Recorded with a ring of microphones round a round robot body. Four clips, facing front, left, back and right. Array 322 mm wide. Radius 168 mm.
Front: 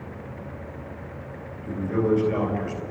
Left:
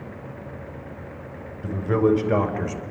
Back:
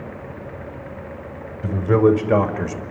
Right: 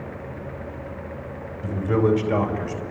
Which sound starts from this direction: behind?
A man speaking, at 1.6 s.